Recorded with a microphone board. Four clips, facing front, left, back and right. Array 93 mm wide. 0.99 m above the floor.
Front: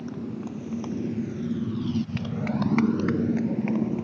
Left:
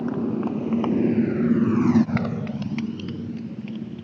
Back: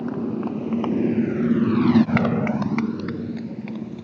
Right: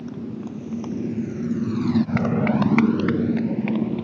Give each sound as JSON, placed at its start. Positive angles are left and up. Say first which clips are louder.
{"t": 0.0, "sound": "a motorcycle", "louder": "left 7 dB, back 8 dB", "azimuth_deg": 130}